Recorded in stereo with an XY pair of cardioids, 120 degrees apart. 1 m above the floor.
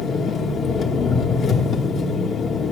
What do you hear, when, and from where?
0.0 s an engine running: 55° left, 1.4 m